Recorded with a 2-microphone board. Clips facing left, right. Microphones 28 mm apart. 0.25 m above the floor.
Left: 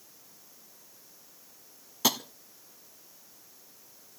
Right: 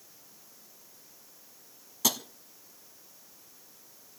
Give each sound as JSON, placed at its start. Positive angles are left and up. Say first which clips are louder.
{"t": 2.0, "sound": "tapping", "louder": "left 2 dB", "side_deg": 20, "distance_m": 0.8}